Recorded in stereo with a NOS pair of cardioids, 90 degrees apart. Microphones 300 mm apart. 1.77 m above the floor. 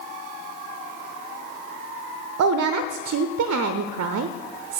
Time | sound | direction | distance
2.4 | a woman speaking | 60° right | 0.6 m